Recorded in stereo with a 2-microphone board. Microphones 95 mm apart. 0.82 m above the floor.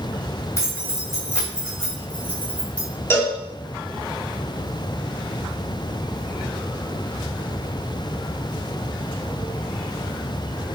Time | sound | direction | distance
0.6 | keys jangling | 30° left (ahead or behind) | 3.5 m
3.1 | a cowbell | 25° left (ahead or behind) | 2 m